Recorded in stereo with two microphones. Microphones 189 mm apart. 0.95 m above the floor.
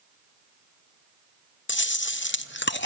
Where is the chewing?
80° left, 0.5 m.